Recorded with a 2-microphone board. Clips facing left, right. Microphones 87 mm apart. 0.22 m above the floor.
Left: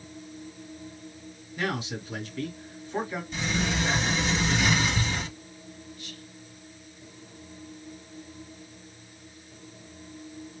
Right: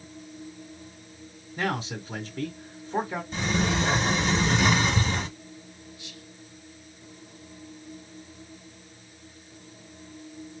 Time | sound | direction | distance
1.6 | a man speaking | 35° right (ahead or behind) | 1.9 m
3.3 | a sliding door | 40° right (ahead or behind) | 1.6 m
6.0 | whispering | 20° right (ahead or behind) | 3 m